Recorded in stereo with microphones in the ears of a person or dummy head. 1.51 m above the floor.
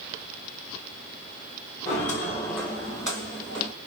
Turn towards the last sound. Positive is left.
turn(degrees=10)  # may be behind; listen again after turning